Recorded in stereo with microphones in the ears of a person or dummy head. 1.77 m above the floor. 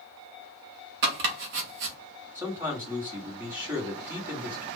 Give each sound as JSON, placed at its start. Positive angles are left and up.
{"t": 1.0, "sound": "chopping", "side_deg": -50, "distance_m": 0.8}
{"t": 2.4, "sound": "a man speaking", "side_deg": -25, "distance_m": 1.2}